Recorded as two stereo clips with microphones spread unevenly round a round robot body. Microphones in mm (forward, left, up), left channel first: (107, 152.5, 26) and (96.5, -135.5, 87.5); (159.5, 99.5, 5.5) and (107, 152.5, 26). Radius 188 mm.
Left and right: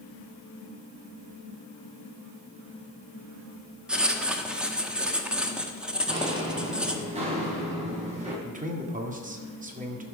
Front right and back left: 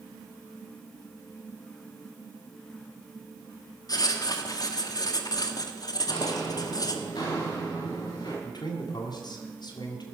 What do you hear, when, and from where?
3.9 s writing: 5° right, 1.2 m
6.1 s footsteps: 25° right, 3 m
8.4 s a man speaking: 25° right, 1.9 m